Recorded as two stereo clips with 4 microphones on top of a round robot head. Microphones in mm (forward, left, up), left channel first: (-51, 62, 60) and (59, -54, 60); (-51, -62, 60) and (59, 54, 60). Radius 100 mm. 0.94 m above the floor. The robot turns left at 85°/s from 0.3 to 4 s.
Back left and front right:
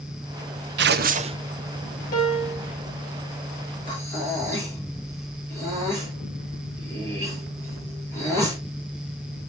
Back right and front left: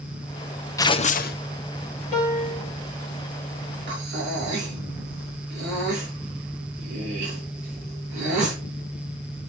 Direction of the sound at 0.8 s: 60° right.